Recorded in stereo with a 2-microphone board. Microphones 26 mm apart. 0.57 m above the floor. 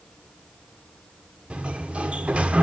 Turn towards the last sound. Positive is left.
turn(degrees=-50)  # may be behind; listen again after turning